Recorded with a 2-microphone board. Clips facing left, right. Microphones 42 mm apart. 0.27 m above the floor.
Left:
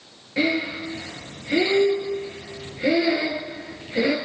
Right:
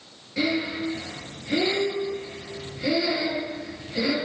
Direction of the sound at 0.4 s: 30° left (ahead or behind).